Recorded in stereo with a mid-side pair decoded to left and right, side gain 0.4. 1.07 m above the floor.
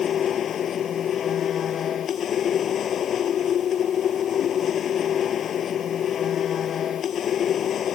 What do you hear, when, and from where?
0.0 s a machine running: 65° left